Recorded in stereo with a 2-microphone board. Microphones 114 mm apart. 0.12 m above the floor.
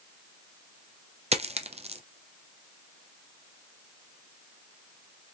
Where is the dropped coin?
65° right (ahead or behind), 0.7 m.